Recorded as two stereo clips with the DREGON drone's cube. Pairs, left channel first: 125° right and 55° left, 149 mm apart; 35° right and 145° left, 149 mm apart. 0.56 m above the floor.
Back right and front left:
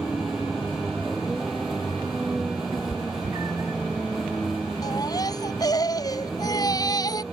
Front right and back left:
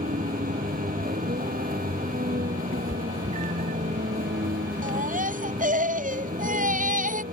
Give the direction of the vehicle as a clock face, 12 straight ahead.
7 o'clock.